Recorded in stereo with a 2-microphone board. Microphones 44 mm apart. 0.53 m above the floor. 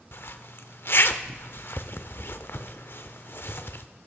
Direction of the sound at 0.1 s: 55° left (ahead or behind).